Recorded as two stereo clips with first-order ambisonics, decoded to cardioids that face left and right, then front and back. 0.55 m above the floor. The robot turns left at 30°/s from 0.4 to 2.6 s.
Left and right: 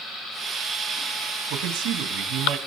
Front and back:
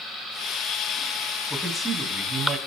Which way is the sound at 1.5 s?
90° right.